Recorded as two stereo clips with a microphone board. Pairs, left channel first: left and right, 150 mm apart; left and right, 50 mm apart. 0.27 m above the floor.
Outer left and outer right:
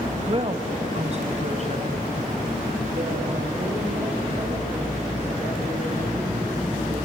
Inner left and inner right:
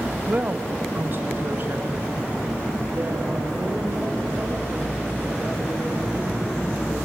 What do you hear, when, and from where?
0.3 s a woman speaking: 35° right (ahead or behind), 1.1 m; by 7.0 s 40° right (ahead or behind), 11 m